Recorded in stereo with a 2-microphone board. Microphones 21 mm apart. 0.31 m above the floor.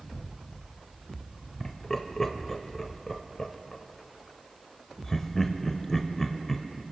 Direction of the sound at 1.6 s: 25° left (ahead or behind).